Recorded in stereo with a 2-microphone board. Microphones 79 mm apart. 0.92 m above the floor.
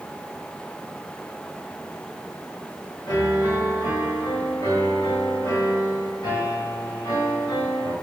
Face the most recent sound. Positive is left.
turn(degrees=70)  # may be behind; listen again after turning